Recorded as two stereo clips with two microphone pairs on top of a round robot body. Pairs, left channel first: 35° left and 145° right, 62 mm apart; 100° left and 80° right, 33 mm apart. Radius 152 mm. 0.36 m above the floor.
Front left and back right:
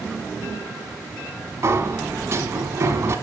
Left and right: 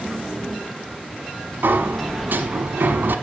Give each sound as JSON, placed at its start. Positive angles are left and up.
{"t": 1.6, "sound": "a sliding door", "azimuth_deg": -95, "distance_m": 1.0}